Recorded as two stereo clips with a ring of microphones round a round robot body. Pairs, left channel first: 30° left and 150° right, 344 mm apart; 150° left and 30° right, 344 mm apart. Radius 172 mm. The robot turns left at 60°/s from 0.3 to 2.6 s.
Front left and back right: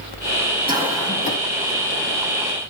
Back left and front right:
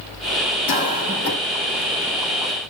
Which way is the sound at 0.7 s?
135° left.